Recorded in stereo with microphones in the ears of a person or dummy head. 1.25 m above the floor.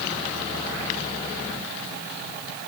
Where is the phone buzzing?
I don't hear a phone buzzing.